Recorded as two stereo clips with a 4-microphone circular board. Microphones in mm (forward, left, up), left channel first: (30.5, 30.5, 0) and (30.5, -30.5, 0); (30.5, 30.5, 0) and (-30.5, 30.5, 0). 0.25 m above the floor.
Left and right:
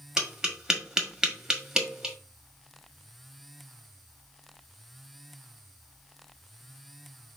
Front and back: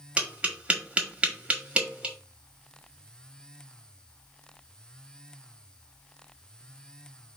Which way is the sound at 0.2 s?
150° right.